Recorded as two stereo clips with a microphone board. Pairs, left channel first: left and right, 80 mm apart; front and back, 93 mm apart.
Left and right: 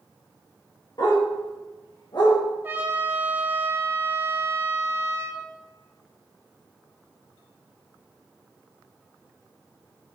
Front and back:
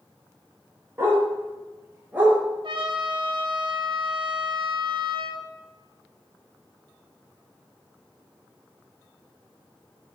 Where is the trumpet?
155° right, 1.8 m.